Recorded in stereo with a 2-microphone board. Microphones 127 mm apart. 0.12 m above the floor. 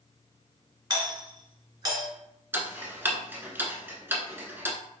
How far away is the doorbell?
About 2.0 m.